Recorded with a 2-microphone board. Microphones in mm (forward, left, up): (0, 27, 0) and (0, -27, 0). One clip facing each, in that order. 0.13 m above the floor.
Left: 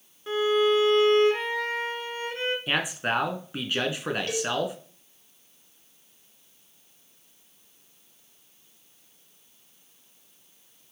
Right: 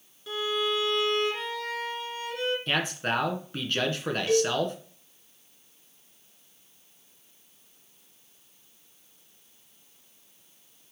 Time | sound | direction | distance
0.3 | a violin | 35° left (ahead or behind) | 1.1 m
2.7 | a man speaking | 15° left (ahead or behind) | 1.3 m
4.3 | a cowbell | 10° right (ahead or behind) | 2.5 m